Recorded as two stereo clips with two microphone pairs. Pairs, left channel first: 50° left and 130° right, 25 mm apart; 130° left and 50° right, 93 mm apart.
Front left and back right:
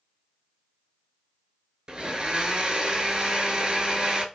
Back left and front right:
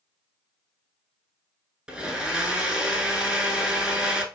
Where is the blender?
130° right, 0.6 m.